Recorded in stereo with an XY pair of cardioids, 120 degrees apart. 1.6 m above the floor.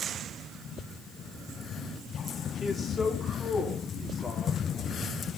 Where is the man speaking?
45° left, 4.5 m; by 4.6 s 40° left, 6.5 m.